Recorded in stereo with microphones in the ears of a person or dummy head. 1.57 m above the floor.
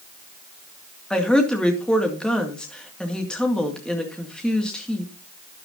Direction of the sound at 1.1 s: Centre (ahead or behind).